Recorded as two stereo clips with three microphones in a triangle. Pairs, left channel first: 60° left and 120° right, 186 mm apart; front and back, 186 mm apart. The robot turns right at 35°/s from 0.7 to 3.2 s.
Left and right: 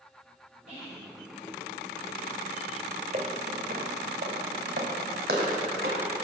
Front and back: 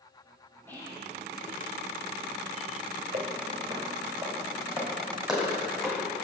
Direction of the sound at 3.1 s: 150° right.